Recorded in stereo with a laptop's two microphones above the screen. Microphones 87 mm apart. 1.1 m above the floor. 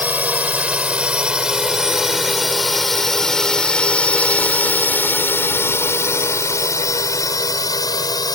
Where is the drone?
20° right (ahead or behind); by 8.4 s 50° left (ahead or behind).